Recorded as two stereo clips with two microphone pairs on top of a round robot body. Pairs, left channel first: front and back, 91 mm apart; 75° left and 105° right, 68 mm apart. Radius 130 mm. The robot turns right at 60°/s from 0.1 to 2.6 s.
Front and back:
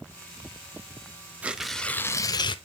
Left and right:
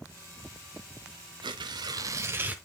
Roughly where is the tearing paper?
Right.